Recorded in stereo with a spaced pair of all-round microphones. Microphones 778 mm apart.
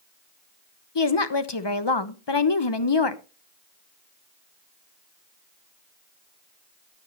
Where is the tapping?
I don't hear tapping.